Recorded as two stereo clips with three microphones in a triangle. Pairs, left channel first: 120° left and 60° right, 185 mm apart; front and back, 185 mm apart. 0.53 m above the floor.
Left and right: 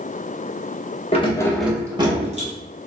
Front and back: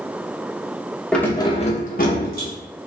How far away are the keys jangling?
About 0.5 m.